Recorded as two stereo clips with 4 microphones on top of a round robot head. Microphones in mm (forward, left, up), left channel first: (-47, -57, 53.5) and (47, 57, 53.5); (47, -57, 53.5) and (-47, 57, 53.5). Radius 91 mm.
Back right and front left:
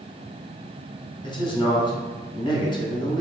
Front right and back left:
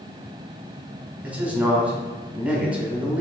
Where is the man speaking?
155° right, 0.9 m.